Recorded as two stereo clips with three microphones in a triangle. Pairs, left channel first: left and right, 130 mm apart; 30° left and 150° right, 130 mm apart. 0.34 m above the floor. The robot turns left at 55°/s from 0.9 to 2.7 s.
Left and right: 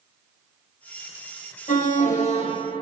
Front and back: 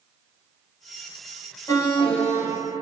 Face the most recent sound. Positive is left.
turn(degrees=40)